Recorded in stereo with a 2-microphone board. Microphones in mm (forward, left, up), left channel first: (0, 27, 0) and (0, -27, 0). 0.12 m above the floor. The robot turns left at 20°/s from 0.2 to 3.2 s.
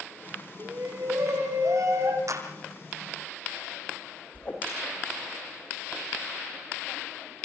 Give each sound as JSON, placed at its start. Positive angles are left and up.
{"t": 0.6, "sound": "a shout", "azimuth_deg": -75, "distance_m": 6.0}
{"t": 2.3, "sound": "a clap", "side_deg": -70, "distance_m": 4.0}
{"t": 4.3, "sound": "a whoosh", "side_deg": 30, "distance_m": 5.5}